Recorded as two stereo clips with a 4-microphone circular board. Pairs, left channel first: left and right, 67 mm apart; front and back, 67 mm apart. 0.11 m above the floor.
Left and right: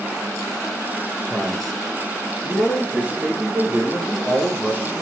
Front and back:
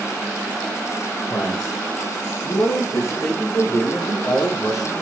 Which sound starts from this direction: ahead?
A man speaking, at 1.3 s.